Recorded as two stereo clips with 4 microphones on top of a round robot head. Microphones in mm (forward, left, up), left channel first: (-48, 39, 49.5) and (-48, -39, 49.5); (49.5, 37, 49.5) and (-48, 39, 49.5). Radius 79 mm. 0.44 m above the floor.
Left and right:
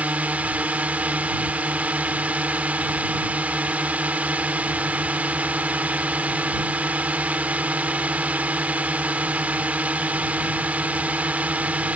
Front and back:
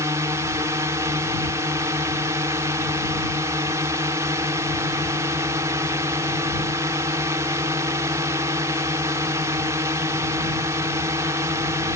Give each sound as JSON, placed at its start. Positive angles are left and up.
{"t": 0.0, "sound": "a drone", "azimuth_deg": -145}